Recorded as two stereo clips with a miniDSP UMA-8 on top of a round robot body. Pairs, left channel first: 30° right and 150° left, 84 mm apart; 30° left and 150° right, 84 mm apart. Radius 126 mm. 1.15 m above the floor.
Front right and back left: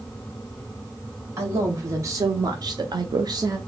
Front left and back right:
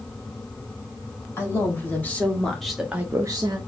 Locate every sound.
1.4 s a man speaking: 90° left, 2 m; by 3.6 s 165° right, 0.9 m